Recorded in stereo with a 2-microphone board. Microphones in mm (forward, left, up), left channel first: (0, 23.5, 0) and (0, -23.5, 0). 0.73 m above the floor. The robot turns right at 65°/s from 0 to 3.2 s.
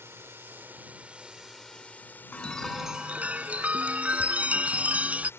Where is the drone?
100° right; by 5.4 s 110° left.